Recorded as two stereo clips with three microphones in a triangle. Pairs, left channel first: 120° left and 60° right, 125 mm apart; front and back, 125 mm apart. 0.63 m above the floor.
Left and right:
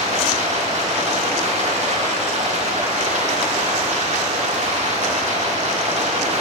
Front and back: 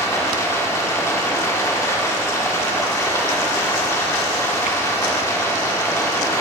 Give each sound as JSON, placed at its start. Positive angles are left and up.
{"t": 0.0, "sound": "running water", "azimuth_deg": -65, "distance_m": 1.1}